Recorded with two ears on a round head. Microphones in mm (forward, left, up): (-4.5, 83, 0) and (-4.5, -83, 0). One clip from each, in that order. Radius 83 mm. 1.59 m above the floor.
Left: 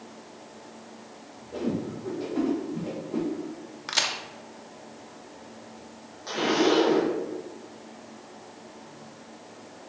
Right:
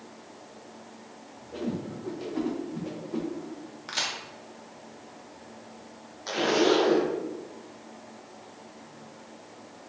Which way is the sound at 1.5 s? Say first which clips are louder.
Left 3 dB; 15° right (ahead or behind).